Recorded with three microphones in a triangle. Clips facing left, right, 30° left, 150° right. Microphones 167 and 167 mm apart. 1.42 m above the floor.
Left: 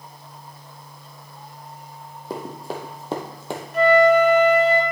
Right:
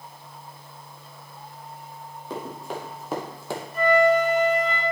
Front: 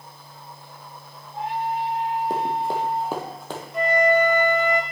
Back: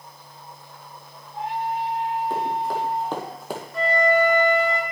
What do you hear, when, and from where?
2.3 s running footsteps: 55° left, 2 m; by 3.6 s 150° left, 1.7 m
3.7 s a flute: 100° left, 1.1 m